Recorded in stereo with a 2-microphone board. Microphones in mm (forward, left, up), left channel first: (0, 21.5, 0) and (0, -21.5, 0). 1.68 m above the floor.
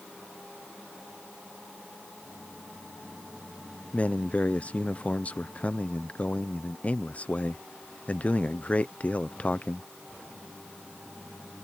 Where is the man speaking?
35° left (ahead or behind).